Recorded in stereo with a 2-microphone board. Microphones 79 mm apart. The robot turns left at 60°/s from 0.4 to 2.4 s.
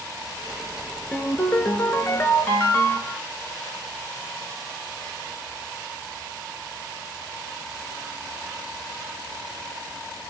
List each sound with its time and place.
1.1 s a ringtone: 135° left, 0.6 m; by 3.2 s 60° left, 0.6 m